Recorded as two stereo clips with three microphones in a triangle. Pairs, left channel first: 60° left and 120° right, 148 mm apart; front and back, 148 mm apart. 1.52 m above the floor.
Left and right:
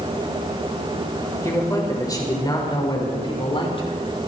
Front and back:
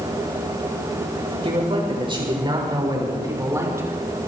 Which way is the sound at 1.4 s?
130° left.